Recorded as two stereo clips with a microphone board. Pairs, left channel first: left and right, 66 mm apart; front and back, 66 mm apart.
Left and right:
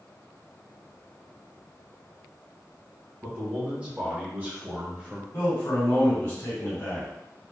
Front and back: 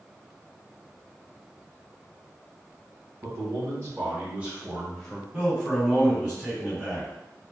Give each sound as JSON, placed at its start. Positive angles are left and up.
{"t": 3.2, "sound": "a man speaking", "azimuth_deg": -155, "distance_m": 1.9}
{"t": 5.3, "sound": "a man speaking", "azimuth_deg": 115, "distance_m": 1.9}